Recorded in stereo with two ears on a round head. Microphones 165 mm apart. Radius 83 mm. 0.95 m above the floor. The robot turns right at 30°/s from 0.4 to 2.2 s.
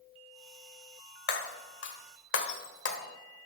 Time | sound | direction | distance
1.3 | breaking glass | 60° left (ahead or behind) | 1.4 m